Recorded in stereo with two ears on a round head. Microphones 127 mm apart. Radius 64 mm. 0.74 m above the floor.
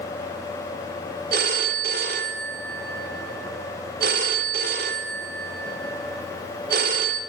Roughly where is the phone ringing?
Right.